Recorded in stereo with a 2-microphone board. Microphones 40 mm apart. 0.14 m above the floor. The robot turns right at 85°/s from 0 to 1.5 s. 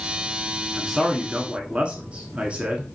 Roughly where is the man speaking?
Behind.